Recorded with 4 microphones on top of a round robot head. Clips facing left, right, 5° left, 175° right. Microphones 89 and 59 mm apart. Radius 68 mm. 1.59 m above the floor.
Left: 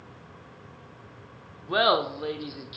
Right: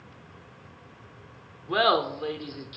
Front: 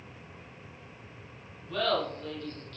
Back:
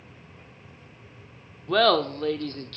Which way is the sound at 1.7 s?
175° left.